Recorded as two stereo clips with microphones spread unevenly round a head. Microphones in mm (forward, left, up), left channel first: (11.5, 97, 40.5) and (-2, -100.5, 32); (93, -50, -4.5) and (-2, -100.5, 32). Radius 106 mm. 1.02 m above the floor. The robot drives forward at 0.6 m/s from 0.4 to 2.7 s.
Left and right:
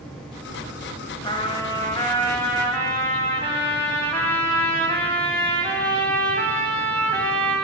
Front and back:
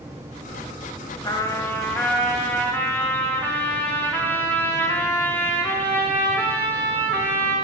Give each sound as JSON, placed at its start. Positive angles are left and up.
{"t": 1.2, "sound": "a trumpet", "azimuth_deg": 85, "distance_m": 0.8}